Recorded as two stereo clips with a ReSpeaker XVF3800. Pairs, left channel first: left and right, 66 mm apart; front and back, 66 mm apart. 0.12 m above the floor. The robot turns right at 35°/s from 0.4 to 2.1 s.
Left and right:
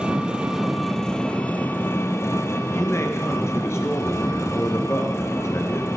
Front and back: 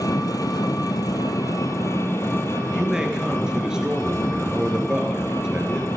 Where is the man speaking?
105° left, 2.0 m.